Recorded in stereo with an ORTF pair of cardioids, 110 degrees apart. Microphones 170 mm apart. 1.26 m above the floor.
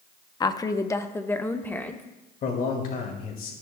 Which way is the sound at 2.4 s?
55° left.